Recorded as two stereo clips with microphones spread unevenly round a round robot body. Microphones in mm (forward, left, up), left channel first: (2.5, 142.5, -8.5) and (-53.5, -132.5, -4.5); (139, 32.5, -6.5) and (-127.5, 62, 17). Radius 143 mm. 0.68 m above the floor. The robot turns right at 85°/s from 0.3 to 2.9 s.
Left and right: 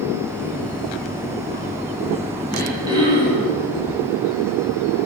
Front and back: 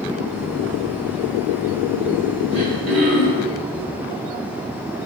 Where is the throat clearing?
150° left, 3.5 m; by 3.5 s 175° right, 3.5 m.